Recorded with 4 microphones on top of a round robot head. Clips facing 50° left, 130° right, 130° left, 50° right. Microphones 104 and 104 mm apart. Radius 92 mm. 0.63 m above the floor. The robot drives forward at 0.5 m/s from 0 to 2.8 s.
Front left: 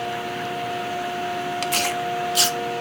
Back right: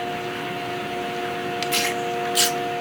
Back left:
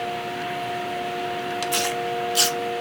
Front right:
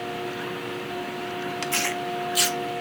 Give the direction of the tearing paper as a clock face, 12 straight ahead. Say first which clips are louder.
Back right 1 dB, back left 4 dB; 10 o'clock.